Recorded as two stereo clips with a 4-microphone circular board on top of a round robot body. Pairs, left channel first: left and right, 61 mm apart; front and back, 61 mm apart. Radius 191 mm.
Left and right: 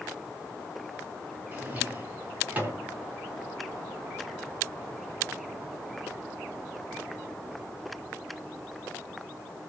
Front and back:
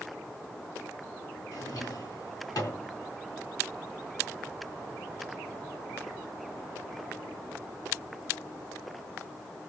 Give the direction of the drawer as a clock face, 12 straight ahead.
1 o'clock.